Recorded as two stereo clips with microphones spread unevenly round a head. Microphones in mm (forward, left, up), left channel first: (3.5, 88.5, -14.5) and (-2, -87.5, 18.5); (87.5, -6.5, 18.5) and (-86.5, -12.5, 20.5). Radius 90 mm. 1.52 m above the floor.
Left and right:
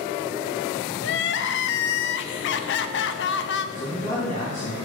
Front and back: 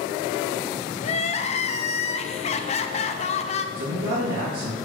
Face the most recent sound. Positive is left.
turn(degrees=145)